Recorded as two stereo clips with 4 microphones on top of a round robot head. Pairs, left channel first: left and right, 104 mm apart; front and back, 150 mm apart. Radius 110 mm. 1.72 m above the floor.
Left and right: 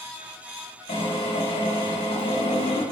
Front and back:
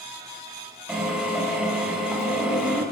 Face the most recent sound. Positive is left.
turn(degrees=95)